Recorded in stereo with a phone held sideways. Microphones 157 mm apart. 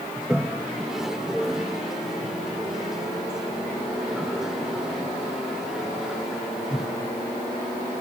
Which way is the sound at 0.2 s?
5° right (ahead or behind).